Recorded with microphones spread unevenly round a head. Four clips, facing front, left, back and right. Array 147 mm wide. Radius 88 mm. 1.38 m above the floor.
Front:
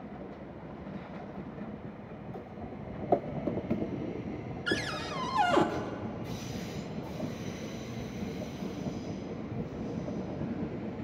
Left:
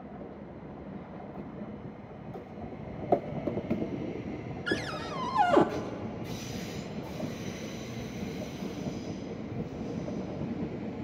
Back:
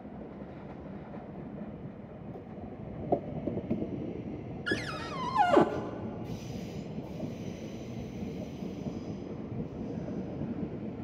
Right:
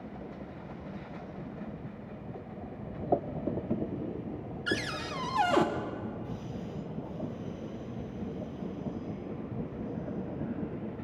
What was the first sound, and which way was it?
A cupboard door, 150° left.